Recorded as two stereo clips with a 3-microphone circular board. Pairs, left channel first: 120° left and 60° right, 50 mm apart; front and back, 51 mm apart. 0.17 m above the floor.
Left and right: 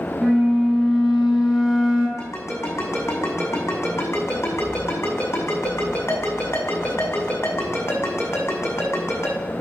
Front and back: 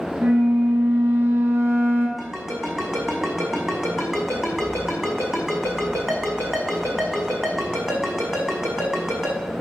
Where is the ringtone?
90° left, 5.5 m.